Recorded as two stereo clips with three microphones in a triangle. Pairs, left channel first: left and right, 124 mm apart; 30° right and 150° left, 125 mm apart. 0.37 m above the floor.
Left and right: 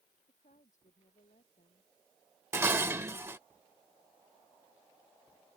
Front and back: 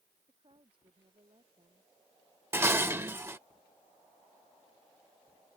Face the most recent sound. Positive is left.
turn(degrees=-150)